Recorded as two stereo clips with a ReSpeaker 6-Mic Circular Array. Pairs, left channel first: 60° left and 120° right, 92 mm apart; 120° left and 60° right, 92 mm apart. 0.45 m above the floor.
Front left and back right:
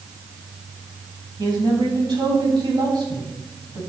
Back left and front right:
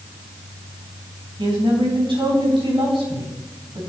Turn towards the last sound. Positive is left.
turn(degrees=-85)